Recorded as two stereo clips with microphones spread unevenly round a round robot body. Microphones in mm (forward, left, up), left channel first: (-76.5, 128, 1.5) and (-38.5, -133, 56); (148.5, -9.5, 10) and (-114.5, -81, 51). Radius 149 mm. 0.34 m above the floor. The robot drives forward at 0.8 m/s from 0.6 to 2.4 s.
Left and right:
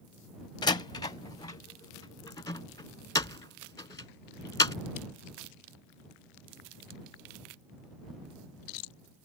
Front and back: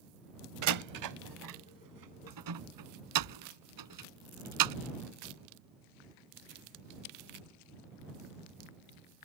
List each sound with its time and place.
0.6 s a door slam: 165° left; by 4.7 s 175° left